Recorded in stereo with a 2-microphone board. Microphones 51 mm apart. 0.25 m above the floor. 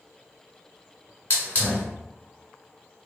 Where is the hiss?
30° left (ahead or behind), 1.5 m.